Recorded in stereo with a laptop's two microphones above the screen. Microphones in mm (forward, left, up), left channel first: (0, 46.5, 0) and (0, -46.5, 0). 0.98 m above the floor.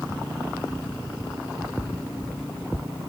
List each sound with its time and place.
Only background noise.